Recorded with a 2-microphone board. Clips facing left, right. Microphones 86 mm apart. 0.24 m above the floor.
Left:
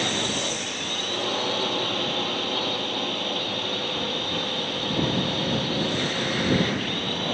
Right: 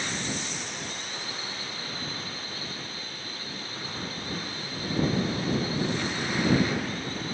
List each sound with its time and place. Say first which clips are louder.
0.0 s a drone: left 6 dB; 75° left (ahead or behind)